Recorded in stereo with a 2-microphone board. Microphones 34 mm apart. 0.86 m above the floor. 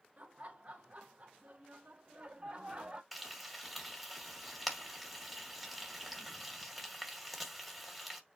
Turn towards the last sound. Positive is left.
turn(degrees=0)  # may be behind; listen again after turning